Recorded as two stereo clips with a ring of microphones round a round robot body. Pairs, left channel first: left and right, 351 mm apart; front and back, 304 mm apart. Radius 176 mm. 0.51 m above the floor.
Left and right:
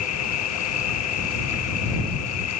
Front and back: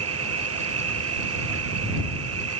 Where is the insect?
140° left.